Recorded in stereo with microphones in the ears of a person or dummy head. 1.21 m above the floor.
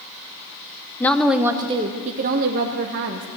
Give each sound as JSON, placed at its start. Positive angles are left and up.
{"t": 1.0, "sound": "a woman speaking", "side_deg": 10, "distance_m": 0.9}